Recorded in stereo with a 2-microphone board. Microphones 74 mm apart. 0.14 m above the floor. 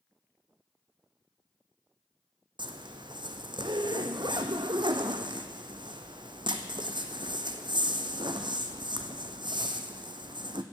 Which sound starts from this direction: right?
A zipper, at 2.6 s.